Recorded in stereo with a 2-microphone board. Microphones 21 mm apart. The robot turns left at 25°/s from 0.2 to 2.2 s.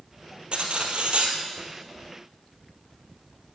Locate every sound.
0.5 s cutlery clinking: 55° right (ahead or behind), 1.9 m; by 1.4 s 65° right (ahead or behind), 1.9 m